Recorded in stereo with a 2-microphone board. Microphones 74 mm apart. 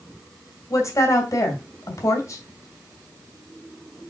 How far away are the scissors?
I don't hear scissors.